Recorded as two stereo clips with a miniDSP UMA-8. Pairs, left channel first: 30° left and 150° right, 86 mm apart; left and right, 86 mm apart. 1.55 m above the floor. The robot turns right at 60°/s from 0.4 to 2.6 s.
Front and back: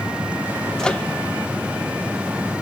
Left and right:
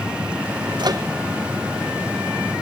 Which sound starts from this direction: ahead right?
A microwave, at 0.8 s.